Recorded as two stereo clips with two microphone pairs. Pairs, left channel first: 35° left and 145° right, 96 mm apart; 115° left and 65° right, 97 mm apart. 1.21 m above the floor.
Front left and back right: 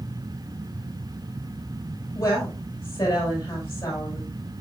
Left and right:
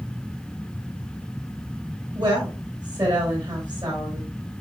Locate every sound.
2.1 s a woman speaking: 20° right, 5.5 m